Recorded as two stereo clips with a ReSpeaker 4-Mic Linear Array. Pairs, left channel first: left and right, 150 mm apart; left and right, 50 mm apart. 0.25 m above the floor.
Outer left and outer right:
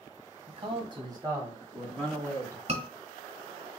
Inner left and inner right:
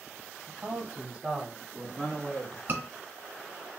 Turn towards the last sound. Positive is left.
turn(degrees=-40)  # may be behind; listen again after turning